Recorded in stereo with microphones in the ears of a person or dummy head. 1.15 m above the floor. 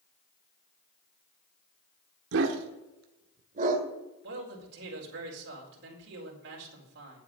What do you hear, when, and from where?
2.3 s a dog barking: 65° right (ahead or behind), 1.3 m; by 3.9 s 45° right (ahead or behind), 2 m
4.2 s a man speaking: 65° right (ahead or behind), 4.5 m